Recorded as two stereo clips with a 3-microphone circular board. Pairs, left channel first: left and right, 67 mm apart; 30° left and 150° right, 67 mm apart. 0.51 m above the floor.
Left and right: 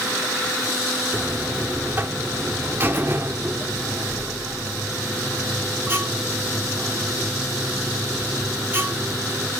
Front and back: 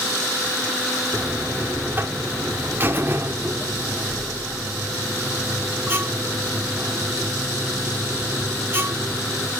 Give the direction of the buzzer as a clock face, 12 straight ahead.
4 o'clock.